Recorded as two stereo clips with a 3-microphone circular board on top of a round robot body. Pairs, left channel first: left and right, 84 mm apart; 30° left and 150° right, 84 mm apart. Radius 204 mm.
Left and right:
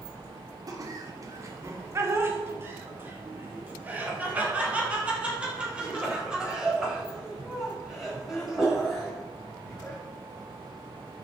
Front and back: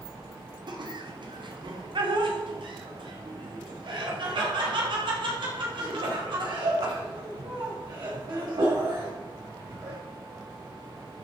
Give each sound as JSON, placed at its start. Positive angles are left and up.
{"t": 0.7, "sound": "laughter", "azimuth_deg": -130, "distance_m": 3.0}